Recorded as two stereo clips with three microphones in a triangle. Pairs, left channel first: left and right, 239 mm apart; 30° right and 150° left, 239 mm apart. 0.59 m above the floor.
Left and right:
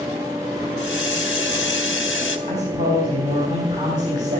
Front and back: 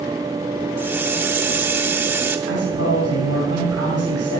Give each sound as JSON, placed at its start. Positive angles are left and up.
{"t": 0.8, "sound": "a hiss", "azimuth_deg": 75, "distance_m": 1.1}
{"t": 2.5, "sound": "a man speaking", "azimuth_deg": -30, "distance_m": 3.0}